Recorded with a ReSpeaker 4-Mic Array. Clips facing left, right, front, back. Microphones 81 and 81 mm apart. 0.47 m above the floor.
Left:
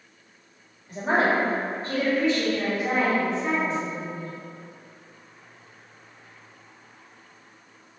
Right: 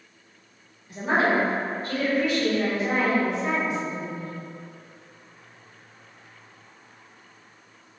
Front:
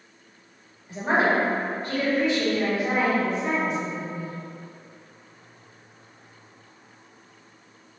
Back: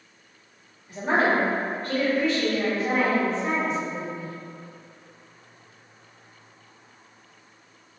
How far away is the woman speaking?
About 1.6 m.